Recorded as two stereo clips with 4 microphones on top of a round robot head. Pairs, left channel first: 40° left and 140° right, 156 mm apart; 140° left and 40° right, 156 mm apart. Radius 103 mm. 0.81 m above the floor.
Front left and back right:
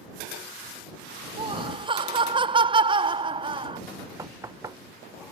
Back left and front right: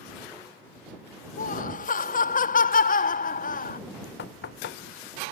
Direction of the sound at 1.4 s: 165° left.